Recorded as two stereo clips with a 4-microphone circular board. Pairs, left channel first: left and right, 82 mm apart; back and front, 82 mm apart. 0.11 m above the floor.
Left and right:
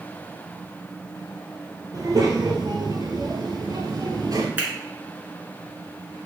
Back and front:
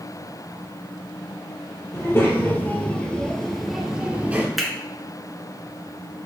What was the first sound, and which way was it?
A child speaking, 125° right.